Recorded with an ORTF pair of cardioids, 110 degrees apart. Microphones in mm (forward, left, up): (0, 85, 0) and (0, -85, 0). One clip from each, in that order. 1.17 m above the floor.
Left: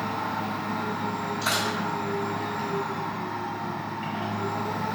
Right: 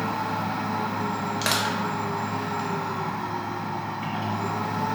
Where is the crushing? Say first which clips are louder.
Right 1 dB; 60° right, 0.9 m.